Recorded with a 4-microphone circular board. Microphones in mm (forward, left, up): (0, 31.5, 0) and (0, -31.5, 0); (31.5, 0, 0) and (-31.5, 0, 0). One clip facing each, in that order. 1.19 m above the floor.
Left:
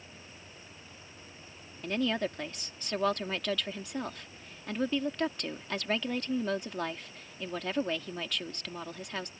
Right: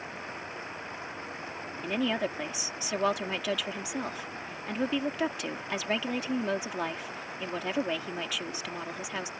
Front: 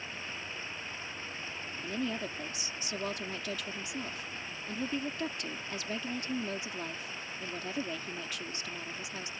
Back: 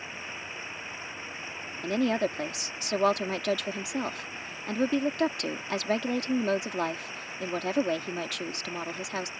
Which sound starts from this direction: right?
Running water, at 0.0 s.